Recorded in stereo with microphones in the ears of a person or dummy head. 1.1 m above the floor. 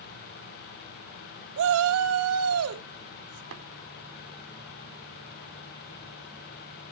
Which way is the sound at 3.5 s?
70° right (ahead or behind).